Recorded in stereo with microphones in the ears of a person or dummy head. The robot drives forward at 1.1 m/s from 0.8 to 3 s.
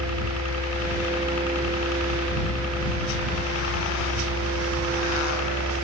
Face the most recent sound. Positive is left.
turn(degrees=75)  # may be behind; listen again after turning